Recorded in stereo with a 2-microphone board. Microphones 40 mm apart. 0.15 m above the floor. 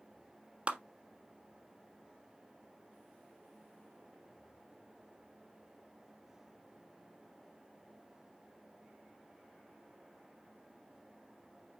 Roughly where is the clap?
Right.